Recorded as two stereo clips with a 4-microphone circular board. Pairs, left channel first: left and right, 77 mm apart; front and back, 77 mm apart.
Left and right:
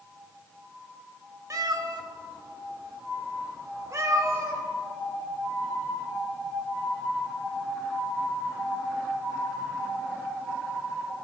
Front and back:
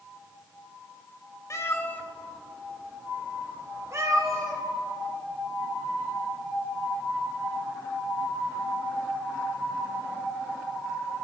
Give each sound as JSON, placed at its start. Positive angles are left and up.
{"t": 1.5, "sound": "a cat meowing", "azimuth_deg": -50, "distance_m": 0.9}